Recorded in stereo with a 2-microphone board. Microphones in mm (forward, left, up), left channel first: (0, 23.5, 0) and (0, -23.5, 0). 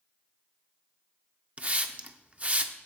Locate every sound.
1.6 s a hiss: 30° right (ahead or behind), 0.6 m